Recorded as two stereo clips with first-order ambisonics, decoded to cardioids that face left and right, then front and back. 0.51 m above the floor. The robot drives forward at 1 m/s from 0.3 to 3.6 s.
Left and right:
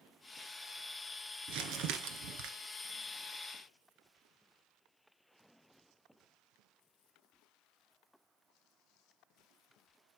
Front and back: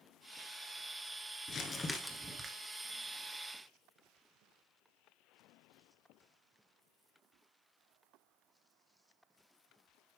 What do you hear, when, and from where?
1.5 s crumpling: 60° right, 1.2 m; by 2.5 s 110° right, 1.1 m